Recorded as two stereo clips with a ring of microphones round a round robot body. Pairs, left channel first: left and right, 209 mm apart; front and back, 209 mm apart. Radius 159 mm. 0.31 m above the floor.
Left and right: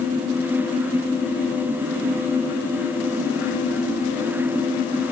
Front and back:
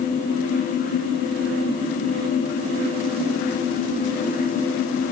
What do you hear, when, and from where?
Only background noise.